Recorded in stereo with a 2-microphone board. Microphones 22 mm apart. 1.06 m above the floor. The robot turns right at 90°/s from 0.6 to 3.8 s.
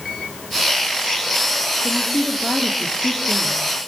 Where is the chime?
I don't hear a chime.